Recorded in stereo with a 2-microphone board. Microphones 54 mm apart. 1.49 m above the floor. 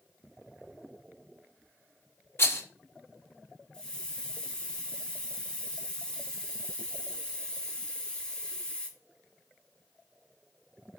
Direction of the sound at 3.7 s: 15° left (ahead or behind).